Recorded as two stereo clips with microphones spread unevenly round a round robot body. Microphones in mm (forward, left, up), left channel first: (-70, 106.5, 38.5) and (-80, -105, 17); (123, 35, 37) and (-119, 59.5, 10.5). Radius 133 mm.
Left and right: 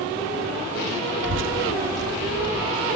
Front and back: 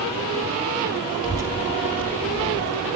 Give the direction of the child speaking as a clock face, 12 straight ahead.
4 o'clock.